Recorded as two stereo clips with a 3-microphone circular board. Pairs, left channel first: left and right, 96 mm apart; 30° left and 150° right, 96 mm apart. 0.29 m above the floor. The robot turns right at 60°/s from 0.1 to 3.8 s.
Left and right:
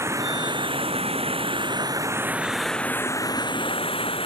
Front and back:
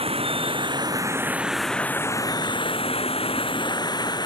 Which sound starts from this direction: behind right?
Running water, at 0.0 s.